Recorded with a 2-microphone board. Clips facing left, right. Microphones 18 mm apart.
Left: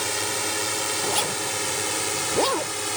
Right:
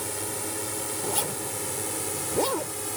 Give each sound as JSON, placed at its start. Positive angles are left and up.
{"t": 0.0, "sound": "a drone", "side_deg": 40}
{"t": 1.0, "sound": "a zipper", "side_deg": 25}